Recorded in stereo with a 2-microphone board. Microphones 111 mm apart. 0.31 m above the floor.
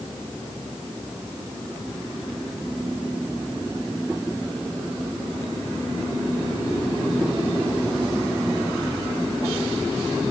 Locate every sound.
Only background noise.